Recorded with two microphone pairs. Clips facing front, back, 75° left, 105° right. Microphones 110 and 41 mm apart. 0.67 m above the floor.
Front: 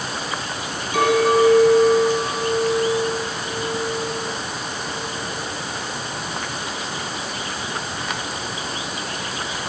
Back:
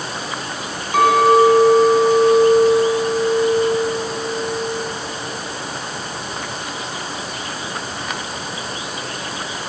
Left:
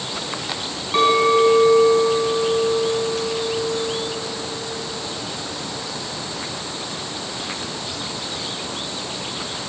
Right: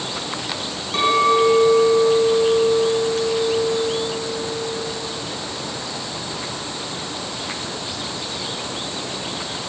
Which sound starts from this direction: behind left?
A clink, at 0.9 s.